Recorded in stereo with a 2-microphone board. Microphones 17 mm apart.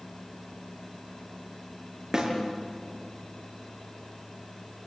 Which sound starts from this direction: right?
A snare drum, at 2.1 s.